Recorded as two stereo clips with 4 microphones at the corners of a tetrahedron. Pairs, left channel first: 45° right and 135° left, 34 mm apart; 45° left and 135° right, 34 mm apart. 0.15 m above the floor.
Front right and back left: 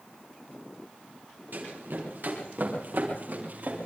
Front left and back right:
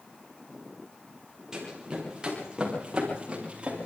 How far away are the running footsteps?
About 7.5 m.